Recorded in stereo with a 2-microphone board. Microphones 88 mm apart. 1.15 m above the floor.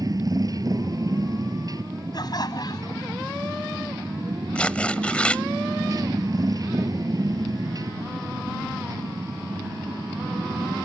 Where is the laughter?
50° left (ahead or behind).